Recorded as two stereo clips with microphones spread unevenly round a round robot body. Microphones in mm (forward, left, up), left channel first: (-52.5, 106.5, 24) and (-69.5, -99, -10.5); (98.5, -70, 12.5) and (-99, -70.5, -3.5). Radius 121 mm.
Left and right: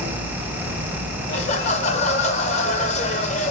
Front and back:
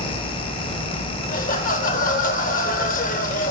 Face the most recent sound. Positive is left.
turn(degrees=30)